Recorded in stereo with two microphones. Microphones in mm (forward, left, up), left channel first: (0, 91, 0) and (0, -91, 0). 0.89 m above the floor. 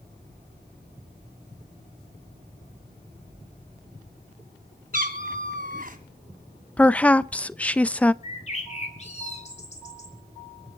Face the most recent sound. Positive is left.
turn(degrees=40)  # may be behind; listen again after turning